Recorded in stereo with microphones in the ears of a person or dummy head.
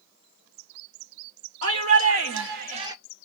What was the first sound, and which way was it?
A shout, 65° right (ahead or behind).